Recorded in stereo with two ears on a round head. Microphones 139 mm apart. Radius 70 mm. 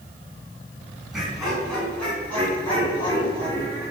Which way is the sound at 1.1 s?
Centre (ahead or behind).